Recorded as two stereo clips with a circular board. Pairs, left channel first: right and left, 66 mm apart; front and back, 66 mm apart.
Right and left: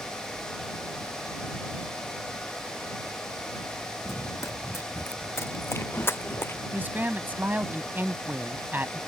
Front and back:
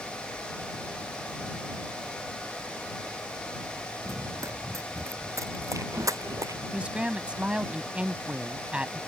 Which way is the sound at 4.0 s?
140° right.